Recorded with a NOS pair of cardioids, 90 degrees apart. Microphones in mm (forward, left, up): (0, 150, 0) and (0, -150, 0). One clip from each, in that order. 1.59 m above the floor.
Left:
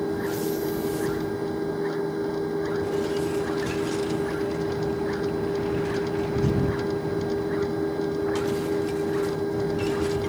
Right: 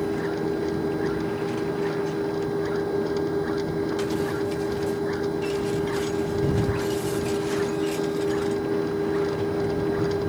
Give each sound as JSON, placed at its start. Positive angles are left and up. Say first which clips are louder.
{"t": 0.0, "sound": "a machine running", "louder": "right 1 dB", "azimuth_deg": -5}